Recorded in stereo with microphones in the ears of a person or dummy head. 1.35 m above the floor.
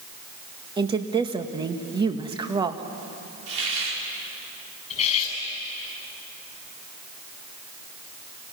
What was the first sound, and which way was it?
A woman speaking, 20° right (ahead or behind).